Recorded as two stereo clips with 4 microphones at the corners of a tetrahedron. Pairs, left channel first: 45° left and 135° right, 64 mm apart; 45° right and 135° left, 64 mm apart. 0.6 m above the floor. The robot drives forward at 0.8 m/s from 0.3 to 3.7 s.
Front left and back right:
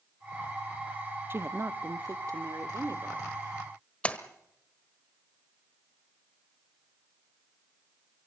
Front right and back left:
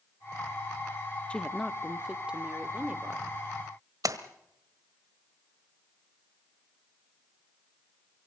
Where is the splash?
115° left, 1.3 m.